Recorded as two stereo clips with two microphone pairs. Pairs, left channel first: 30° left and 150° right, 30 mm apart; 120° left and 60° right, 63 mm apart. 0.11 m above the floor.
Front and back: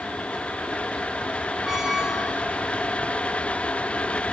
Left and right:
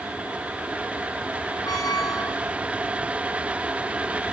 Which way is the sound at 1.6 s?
135° left.